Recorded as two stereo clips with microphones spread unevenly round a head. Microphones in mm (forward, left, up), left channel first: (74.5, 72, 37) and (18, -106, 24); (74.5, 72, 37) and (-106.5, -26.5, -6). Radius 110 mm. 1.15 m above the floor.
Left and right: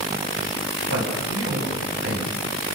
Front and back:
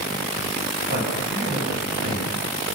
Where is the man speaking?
105° right, 8.5 m.